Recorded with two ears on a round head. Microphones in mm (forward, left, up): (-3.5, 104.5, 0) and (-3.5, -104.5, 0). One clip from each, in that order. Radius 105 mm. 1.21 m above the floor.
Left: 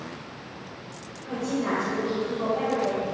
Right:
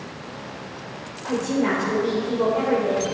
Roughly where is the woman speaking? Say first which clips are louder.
Right 5 dB; right.